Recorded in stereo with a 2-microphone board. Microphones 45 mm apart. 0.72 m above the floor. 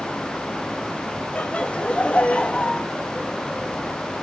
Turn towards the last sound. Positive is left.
turn(degrees=25)  # may be behind; listen again after turning